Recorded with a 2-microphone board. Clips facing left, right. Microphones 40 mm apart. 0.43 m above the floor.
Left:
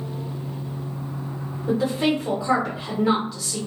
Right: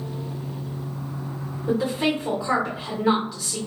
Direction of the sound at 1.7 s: Centre (ahead or behind).